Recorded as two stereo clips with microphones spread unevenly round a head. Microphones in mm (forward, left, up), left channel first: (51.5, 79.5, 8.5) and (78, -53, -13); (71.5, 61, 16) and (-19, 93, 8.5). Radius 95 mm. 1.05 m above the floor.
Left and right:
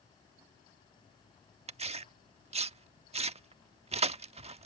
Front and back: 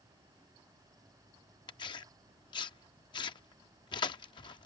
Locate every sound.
1.7 s tearing paper: 40° right